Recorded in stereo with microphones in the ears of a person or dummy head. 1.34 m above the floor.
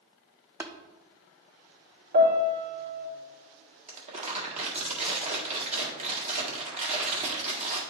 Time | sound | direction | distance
0.6 | tapping | 15° right (ahead or behind) | 0.6 m
2.1 | a piano | 65° right (ahead or behind) | 2.5 m
3.9 | crumpling | 35° right (ahead or behind) | 1.8 m